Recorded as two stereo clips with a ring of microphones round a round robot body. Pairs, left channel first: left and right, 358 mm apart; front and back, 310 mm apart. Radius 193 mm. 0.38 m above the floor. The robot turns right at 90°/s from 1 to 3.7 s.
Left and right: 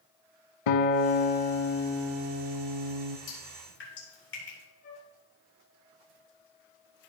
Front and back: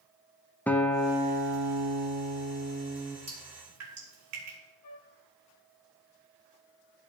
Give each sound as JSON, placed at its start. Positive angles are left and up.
{"t": 0.7, "sound": "a guitar", "azimuth_deg": 85, "distance_m": 0.9}
{"t": 3.3, "sound": "dripping", "azimuth_deg": 110, "distance_m": 5.0}
{"t": 4.8, "sound": "a flute", "azimuth_deg": 25, "distance_m": 1.9}